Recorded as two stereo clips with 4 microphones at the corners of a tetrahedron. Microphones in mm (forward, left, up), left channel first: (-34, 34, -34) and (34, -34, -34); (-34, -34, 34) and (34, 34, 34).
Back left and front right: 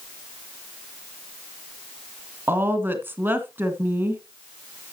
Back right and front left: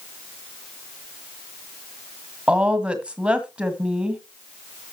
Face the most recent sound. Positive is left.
turn(degrees=-20)